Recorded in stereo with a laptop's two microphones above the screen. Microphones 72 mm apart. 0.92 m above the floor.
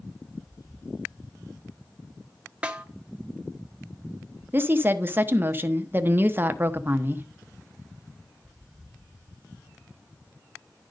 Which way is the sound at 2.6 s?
15° right (ahead or behind).